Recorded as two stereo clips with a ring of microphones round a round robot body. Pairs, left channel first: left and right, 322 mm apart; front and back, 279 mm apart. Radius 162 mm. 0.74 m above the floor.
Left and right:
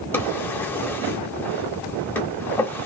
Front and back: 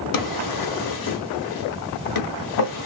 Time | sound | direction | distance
0.1 | a drawer | 5° left | 0.9 m